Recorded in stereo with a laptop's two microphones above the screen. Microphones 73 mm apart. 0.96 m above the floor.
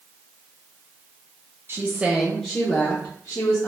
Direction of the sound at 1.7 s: 35° right (ahead or behind).